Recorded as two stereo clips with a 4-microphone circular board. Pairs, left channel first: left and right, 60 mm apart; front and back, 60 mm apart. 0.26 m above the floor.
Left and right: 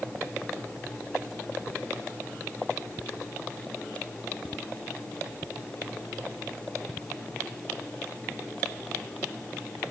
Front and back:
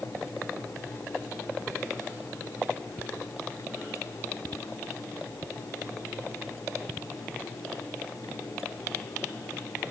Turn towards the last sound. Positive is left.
No sound to turn to.